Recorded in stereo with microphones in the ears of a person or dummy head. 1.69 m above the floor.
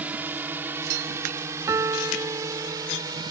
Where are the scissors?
No scissors in this recording.